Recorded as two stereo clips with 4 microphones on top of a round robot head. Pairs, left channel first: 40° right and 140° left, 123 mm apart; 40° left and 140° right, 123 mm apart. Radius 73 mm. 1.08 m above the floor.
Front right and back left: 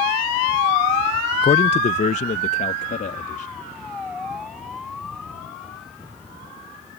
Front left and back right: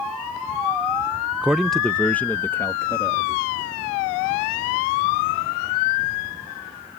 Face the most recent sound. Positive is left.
turn(degrees=-25)